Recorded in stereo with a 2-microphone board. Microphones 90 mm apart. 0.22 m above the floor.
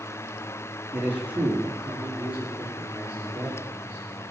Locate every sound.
0.9 s a man speaking: 20° right (ahead or behind), 5.5 m; by 4.3 s 25° right (ahead or behind), 10 m